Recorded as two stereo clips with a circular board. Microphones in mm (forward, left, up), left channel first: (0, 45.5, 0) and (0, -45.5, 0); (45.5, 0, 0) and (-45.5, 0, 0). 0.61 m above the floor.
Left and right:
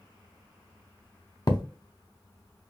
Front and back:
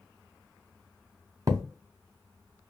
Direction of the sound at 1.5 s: 130° left.